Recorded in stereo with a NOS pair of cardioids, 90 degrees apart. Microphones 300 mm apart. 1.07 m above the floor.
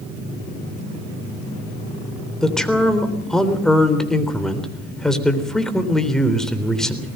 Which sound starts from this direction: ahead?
A man speaking, at 2.4 s.